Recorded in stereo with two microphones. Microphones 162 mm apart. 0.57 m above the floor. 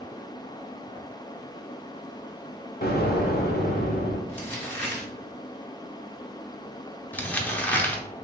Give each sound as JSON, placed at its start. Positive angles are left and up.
{"t": 2.8, "sound": "an explosion", "side_deg": 65, "distance_m": 0.7}
{"t": 4.3, "sound": "crumpling", "side_deg": 10, "distance_m": 1.6}
{"t": 7.1, "sound": "crumpling", "side_deg": 10, "distance_m": 0.7}